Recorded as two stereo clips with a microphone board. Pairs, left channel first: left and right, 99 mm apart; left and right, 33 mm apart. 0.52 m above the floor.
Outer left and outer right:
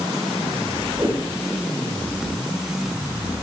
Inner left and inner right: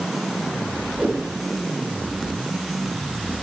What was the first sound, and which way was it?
A whoosh, 40° right (ahead or behind).